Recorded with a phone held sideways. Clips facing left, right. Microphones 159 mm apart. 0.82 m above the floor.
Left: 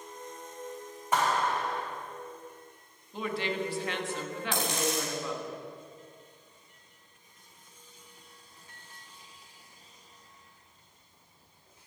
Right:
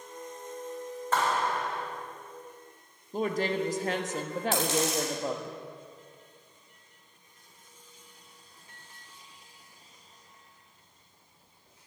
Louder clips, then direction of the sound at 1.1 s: Left 1 dB; 15° left (ahead or behind).